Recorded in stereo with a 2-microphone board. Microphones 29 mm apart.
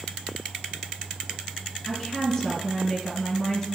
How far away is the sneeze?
No sneeze in this recording.